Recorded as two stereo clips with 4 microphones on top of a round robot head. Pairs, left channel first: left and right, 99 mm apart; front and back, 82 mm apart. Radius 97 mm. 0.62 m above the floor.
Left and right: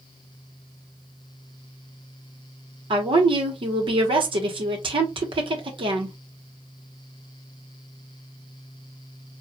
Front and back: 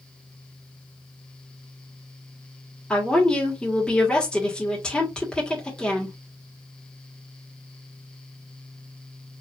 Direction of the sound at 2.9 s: 80° right.